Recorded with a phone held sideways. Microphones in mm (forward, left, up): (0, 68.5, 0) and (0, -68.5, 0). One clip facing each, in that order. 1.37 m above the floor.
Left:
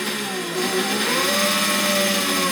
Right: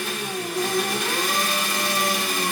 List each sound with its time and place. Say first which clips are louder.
0.0 s an engine running: left 2 dB; 85° left, 2.5 m